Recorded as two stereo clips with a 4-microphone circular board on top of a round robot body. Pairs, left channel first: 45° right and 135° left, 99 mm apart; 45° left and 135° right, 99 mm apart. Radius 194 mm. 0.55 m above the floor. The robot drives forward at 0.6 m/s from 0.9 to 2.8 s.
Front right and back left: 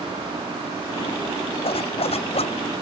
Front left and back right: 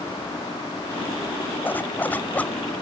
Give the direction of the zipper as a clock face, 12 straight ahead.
1 o'clock.